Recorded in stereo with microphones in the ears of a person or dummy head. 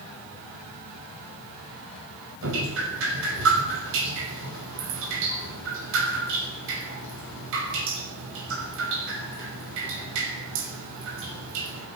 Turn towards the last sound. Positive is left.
turn(degrees=-75)  # may be behind; listen again after turning